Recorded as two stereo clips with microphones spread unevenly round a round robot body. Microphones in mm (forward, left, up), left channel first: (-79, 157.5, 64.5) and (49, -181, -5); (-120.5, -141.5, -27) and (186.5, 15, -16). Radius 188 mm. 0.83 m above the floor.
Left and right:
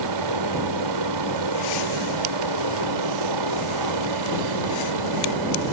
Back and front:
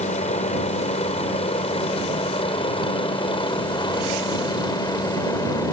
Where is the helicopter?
85° right; by 5.7 s 75° right.